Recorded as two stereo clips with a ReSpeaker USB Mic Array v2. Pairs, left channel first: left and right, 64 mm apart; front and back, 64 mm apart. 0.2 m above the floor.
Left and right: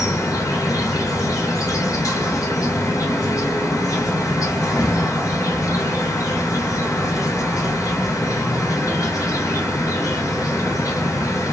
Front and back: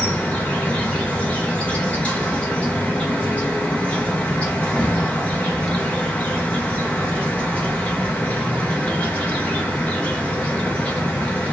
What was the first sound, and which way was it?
An insect, 70° left.